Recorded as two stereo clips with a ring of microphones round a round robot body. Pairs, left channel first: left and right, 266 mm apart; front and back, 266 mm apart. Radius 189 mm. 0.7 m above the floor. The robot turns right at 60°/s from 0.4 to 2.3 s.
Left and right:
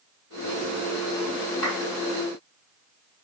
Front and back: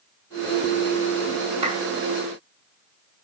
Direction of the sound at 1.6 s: 145° left.